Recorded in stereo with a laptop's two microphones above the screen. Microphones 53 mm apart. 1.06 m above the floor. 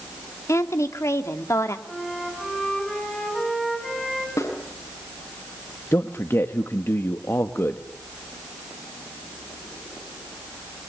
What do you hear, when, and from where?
0.5 s a woman speaking: 65° left (ahead or behind), 2.5 m
1.9 s a flute: 10° left (ahead or behind), 10 m
4.4 s a snare drum: 85° left, 7 m
5.9 s a man speaking: 50° left (ahead or behind), 1.6 m